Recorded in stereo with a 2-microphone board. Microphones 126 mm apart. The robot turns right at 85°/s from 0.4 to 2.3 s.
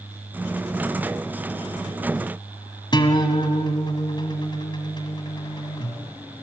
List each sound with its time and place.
2.9 s a guitar: 40° left (ahead or behind), 1.5 m